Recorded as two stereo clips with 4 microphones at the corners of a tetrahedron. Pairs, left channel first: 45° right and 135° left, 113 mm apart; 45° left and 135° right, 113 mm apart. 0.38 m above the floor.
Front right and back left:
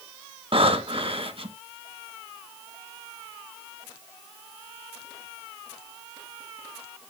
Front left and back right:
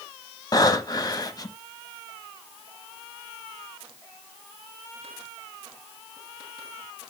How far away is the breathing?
About 1.0 m.